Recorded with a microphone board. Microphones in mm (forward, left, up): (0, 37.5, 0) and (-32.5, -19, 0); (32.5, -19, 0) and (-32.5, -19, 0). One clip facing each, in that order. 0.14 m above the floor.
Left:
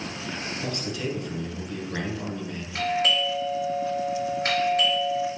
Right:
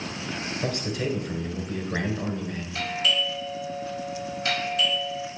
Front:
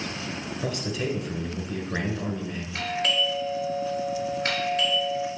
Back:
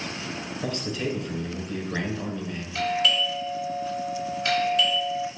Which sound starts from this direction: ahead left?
A doorbell, at 2.8 s.